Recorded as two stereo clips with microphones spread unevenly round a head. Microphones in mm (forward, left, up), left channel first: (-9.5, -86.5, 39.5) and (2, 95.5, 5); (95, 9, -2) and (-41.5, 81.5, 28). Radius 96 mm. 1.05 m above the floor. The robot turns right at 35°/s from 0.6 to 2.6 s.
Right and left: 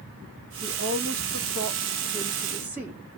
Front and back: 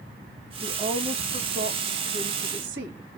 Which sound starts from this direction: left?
A woman speaking, at 0.6 s.